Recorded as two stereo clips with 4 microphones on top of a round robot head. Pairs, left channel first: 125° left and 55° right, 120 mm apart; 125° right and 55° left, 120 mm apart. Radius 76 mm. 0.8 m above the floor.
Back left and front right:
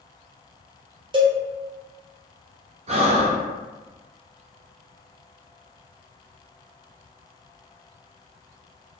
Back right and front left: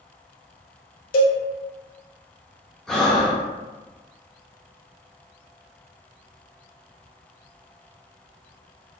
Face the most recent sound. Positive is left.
turn(degrees=-40)